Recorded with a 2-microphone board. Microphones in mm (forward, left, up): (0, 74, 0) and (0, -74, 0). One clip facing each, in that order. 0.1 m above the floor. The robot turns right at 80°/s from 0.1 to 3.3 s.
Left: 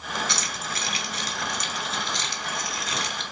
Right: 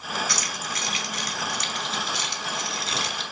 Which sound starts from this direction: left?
Keys jangling, at 0.3 s.